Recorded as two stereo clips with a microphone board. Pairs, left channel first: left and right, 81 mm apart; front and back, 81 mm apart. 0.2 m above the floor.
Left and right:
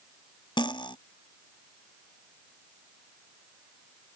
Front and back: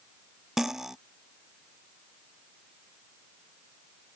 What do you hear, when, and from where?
0.6 s cutlery clinking: 95° left